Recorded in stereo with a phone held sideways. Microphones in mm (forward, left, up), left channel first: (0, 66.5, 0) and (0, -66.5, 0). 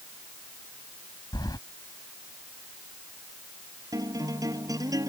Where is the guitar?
25° right (ahead or behind).